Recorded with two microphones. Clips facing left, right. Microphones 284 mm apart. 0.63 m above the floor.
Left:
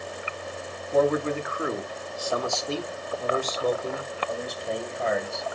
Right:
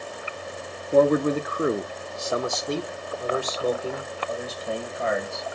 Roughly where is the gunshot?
I don't hear a gunshot.